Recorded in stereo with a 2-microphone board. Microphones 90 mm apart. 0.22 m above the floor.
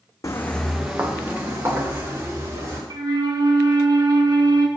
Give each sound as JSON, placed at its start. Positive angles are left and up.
{"t": 0.2, "sound": "footsteps", "side_deg": 40, "distance_m": 0.9}
{"t": 2.9, "sound": "a flute", "side_deg": -55, "distance_m": 0.8}